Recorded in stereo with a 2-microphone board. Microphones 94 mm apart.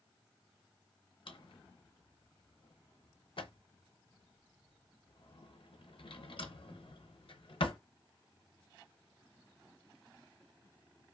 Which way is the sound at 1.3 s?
65° left (ahead or behind).